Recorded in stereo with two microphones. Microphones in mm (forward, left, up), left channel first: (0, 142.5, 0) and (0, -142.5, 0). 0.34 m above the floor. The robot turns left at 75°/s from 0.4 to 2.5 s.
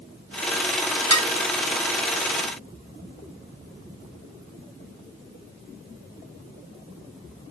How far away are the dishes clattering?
About 2.0 m.